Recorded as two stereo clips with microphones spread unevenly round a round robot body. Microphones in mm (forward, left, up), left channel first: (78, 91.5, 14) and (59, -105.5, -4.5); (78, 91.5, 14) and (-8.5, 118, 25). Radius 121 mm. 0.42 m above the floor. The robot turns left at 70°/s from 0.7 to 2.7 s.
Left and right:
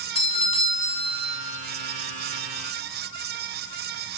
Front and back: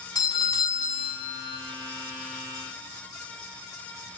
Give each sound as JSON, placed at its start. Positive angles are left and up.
{"t": 0.1, "sound": "a doorbell", "azimuth_deg": 25, "distance_m": 5.5}